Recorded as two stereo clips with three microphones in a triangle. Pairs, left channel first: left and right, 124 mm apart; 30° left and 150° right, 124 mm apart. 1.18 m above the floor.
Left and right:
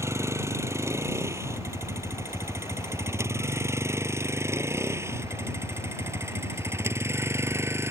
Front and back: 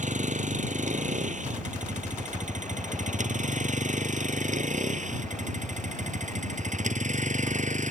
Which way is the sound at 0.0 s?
160° right.